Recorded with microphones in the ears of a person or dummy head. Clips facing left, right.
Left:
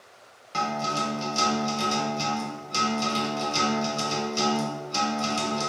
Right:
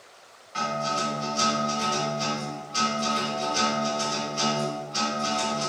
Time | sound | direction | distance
0.5 | a guitar | 65° left (ahead or behind) | 1.0 m